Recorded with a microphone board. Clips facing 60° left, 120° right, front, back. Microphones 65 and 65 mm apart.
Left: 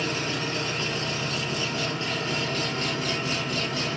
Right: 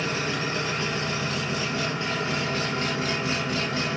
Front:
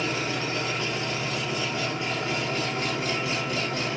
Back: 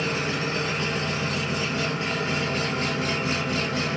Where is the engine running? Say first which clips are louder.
Right 1 dB, back 2 dB; straight behind, 1.4 m.